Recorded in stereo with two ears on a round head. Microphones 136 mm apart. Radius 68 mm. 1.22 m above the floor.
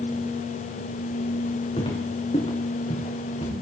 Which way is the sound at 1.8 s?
40° left (ahead or behind).